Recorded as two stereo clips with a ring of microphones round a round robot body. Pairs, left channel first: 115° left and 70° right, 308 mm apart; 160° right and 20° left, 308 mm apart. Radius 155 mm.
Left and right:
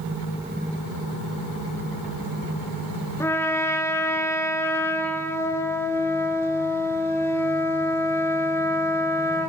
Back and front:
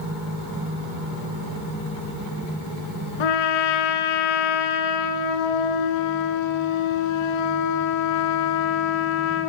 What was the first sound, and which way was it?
A trumpet, 165° right.